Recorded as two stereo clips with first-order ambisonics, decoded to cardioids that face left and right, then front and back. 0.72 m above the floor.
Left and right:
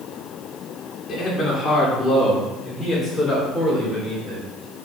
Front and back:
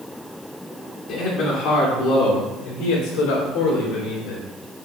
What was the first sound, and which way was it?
A man speaking, 25° left.